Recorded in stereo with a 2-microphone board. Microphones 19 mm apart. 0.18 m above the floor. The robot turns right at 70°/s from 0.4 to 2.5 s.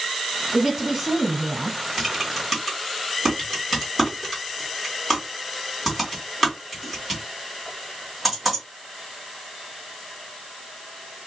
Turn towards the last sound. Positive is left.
turn(degrees=-10)  # may be behind; listen again after turning